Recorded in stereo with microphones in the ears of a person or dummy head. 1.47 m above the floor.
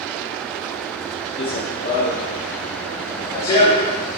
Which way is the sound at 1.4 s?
25° left (ahead or behind).